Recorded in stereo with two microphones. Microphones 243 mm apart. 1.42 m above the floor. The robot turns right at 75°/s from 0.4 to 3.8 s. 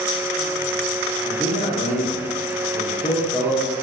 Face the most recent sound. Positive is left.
turn(degrees=-150)